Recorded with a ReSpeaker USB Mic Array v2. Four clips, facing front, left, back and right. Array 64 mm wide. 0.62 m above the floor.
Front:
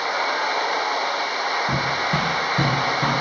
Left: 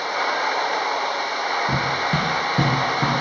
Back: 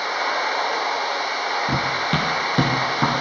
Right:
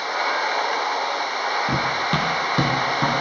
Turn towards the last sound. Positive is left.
turn(degrees=-160)